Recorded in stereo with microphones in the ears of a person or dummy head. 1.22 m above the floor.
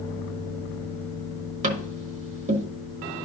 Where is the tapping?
40° right (ahead or behind), 1.2 m.